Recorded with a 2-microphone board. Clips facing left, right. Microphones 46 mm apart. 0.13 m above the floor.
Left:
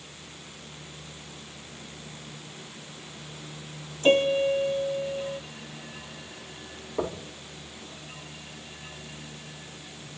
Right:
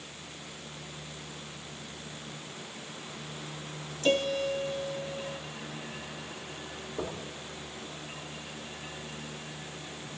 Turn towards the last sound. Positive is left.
turn(degrees=50)  # may be behind; listen again after turning